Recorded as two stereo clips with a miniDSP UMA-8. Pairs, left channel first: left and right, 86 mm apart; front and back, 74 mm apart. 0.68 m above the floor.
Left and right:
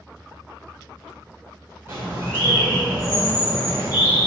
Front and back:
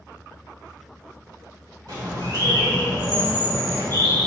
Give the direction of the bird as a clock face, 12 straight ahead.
5 o'clock.